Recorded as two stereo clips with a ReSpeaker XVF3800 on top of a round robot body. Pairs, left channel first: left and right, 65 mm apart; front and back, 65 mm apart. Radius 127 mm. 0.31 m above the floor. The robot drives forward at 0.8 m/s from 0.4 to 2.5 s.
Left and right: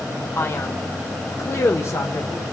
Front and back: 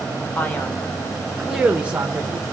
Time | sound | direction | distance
0.4 | a man speaking | 50° left | 1.6 m